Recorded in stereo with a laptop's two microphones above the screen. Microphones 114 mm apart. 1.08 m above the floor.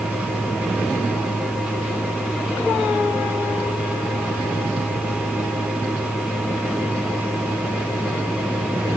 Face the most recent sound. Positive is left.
turn(degrees=-5)  # may be behind; listen again after turning